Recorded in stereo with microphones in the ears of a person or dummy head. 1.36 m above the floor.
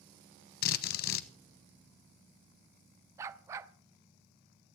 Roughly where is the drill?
Left.